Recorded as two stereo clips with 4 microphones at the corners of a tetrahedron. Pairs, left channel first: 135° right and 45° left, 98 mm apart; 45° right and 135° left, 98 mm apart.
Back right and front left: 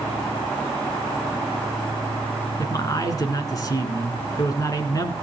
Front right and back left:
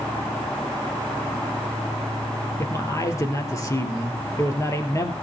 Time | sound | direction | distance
2.6 | a man speaking | 95° right | 2.5 m